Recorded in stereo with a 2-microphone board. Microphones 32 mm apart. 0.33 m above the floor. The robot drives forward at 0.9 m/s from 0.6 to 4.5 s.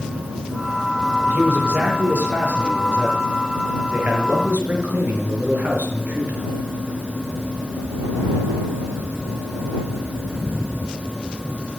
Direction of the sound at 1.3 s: 40° right (ahead or behind).